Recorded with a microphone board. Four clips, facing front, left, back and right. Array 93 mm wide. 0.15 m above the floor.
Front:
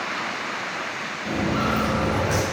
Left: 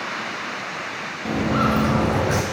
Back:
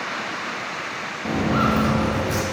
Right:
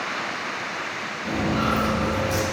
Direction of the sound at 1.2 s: 160° left.